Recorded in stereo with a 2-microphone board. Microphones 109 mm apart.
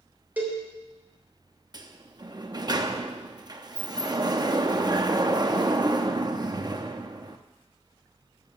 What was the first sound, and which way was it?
A cowbell, 15° right (ahead or behind).